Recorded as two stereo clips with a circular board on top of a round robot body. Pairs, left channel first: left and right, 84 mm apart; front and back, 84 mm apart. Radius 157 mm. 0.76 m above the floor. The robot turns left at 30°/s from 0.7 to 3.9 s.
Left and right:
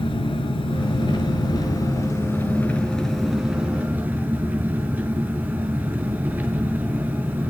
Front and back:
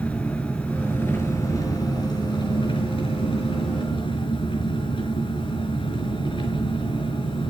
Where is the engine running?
80° left, 4.5 m; by 7.5 s 20° right, 4.5 m.